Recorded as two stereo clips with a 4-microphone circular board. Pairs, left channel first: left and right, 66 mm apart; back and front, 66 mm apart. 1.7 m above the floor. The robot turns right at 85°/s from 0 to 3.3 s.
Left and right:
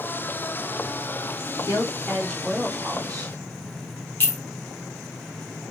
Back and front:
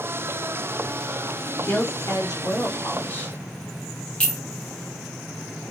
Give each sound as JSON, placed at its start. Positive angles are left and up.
{"t": 1.6, "sound": "a woman speaking", "azimuth_deg": 110, "distance_m": 0.9}
{"t": 4.2, "sound": "a clink", "azimuth_deg": 120, "distance_m": 1.0}